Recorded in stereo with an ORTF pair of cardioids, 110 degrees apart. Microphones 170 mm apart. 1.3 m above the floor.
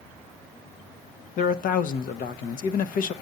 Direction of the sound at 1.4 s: 60° left.